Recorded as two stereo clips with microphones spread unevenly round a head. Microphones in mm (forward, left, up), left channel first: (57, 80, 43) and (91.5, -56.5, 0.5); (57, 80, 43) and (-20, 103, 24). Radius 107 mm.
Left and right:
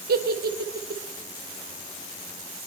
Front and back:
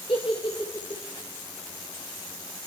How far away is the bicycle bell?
No bicycle bell in this recording.